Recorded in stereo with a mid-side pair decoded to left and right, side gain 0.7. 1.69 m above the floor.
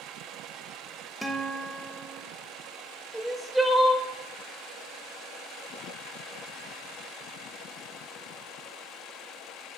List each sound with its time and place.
1.2 s a guitar: straight ahead, 0.9 m
3.1 s crying: straight ahead, 0.9 m